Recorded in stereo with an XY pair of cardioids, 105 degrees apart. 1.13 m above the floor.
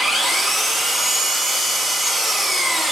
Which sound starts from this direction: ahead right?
An engine running, at 0.0 s.